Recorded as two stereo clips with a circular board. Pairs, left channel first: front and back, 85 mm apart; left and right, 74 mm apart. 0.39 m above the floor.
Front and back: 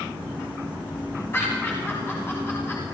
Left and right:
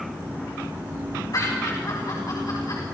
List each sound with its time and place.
1.3 s laughter: 60° left, 3.5 m